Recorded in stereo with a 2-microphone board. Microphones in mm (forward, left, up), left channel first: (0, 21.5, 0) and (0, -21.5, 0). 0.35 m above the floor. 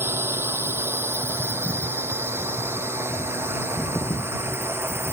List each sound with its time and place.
0.0 s a drone: 75° right (ahead or behind); by 5.2 s 85° right